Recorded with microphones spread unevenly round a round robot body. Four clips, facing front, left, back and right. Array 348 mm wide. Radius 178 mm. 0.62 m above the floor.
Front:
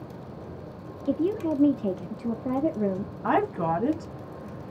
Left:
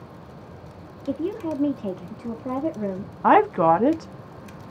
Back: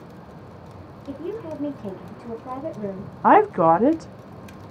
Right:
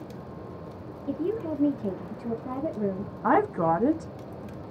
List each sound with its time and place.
1.1 s a woman speaking: 5° left, 0.8 m
3.2 s a woman speaking: 150° left, 0.6 m